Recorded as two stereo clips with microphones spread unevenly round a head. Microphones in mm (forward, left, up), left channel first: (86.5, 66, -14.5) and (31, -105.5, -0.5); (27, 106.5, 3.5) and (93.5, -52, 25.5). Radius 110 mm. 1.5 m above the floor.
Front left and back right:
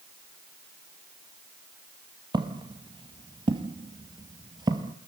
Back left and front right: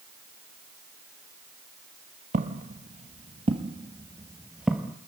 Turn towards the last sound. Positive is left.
turn(degrees=-150)